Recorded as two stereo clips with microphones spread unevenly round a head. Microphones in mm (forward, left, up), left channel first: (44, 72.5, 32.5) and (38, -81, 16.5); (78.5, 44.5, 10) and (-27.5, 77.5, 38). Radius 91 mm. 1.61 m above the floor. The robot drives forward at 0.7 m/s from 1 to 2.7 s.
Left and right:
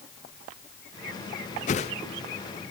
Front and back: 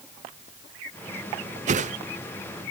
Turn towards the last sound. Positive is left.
turn(degrees=160)